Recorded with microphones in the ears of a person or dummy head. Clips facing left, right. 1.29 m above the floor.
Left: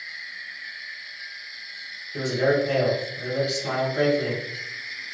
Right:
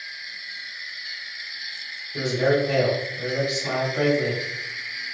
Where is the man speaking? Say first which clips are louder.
Right 1 dB; 15° left (ahead or behind), 1.9 m.